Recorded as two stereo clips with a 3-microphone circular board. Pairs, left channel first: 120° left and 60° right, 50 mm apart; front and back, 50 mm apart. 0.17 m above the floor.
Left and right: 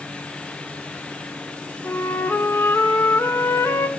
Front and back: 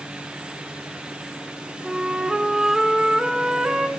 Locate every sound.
1.8 s a flute: 105° left, 0.7 m